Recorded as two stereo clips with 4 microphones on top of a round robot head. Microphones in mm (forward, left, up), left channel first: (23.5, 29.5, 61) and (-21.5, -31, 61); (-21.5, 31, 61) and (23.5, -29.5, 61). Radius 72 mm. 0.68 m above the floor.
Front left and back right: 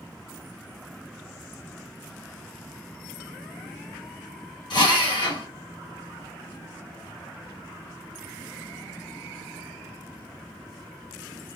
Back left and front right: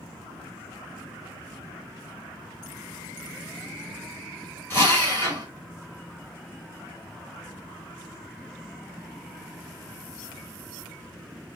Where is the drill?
65° left, 2.0 m.